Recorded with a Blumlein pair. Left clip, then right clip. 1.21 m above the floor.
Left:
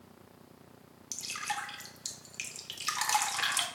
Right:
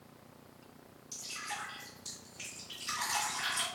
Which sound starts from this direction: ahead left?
Dripping, at 1.1 s.